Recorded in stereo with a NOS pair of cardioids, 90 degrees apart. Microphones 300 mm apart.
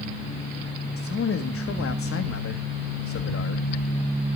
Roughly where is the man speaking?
Ahead left.